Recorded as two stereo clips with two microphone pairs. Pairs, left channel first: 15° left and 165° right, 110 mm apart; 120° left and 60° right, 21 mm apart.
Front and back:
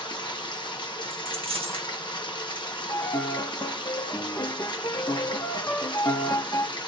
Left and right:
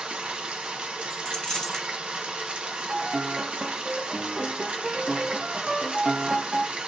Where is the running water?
30° right, 0.7 m.